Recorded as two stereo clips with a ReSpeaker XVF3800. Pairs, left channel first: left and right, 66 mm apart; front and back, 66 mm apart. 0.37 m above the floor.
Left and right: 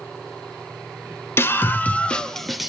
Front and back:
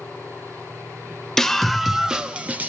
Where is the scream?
80° left, 1.0 m; by 2.7 s 170° right, 0.8 m.